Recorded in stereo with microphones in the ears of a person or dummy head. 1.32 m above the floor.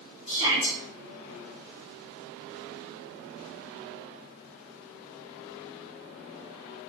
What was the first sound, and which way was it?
A shout, 65° left (ahead or behind).